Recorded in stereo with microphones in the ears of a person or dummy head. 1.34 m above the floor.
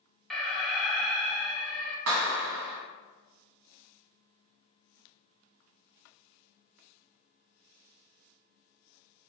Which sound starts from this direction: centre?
An alarm, at 0.3 s.